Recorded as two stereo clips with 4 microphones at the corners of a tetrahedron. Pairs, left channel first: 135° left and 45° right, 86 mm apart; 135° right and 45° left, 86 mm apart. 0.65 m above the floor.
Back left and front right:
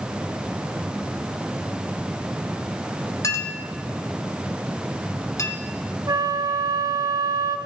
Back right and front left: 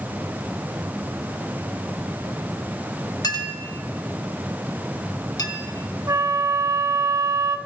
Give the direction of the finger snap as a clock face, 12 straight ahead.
No finger snap in this recording.